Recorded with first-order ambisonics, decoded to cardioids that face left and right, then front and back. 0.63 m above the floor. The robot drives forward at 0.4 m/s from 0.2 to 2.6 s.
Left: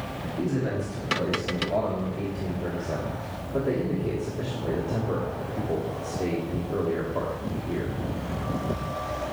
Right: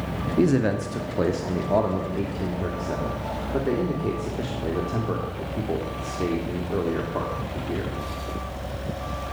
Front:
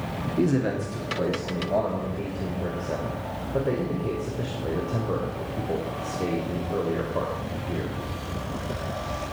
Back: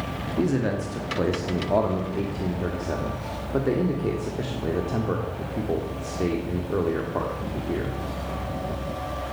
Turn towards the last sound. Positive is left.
turn(degrees=-150)